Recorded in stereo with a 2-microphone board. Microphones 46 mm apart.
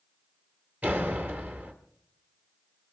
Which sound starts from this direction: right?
A door slam, at 0.8 s.